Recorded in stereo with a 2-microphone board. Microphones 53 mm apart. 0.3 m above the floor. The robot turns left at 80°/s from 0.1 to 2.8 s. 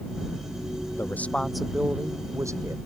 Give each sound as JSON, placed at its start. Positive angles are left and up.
{"t": 1.0, "sound": "a man speaking", "azimuth_deg": 45}